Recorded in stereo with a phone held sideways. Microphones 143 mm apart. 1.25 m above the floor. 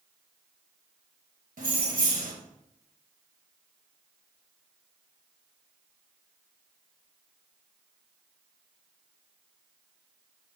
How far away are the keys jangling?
About 0.9 m.